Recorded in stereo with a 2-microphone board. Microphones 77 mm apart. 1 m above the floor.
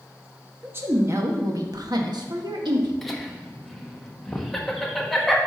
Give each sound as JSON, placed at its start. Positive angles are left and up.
{"t": 0.6, "sound": "a woman speaking", "side_deg": -30, "distance_m": 1.2}
{"t": 3.0, "sound": "laughter", "side_deg": 0, "distance_m": 1.3}